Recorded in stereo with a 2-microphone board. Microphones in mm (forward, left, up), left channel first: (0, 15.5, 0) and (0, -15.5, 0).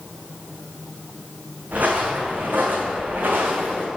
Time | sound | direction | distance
1.7 | footsteps | 50° right (ahead or behind) | 1.3 m